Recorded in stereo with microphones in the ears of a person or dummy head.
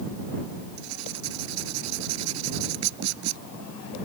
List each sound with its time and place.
0.8 s writing: 80° right